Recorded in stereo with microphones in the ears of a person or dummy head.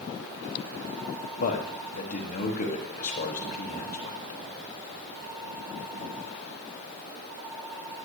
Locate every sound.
1.4 s a man speaking: 45° left (ahead or behind), 1.0 m